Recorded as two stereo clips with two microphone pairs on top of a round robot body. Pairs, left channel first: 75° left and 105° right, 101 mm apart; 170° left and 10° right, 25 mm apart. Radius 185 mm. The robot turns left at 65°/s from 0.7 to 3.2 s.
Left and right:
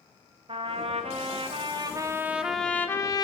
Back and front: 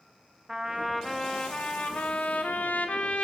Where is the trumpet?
80° right, 0.9 m; by 3.2 s 115° left, 0.9 m.